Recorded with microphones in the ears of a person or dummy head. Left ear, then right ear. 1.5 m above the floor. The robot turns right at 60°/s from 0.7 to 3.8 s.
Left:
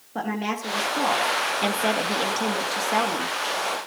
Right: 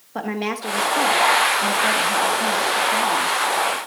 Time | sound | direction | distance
0.1 | a woman speaking | 30° right | 1.7 m